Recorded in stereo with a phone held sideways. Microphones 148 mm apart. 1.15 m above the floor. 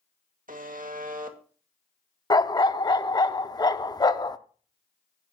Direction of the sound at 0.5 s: 65° right (ahead or behind).